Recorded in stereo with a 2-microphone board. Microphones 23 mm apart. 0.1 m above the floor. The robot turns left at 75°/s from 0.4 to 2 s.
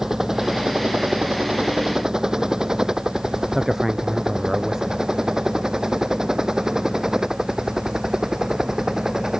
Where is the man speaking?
25° right (ahead or behind).